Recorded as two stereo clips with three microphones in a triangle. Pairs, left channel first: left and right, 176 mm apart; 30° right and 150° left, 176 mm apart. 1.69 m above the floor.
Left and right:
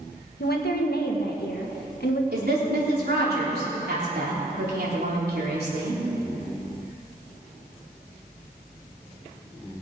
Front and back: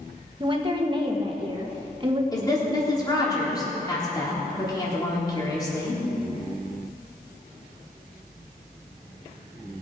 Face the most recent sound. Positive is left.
turn(degrees=-95)